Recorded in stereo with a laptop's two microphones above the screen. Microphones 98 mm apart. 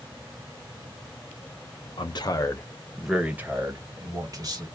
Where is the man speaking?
55° left (ahead or behind), 0.6 m; by 4.7 s 45° right (ahead or behind), 1.2 m.